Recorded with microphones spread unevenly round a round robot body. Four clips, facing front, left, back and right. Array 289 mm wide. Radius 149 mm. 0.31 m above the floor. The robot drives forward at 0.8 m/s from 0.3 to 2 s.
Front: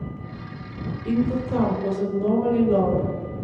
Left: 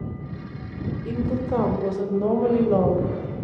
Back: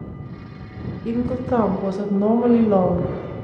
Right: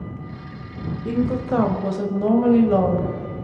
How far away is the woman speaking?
About 1.4 m.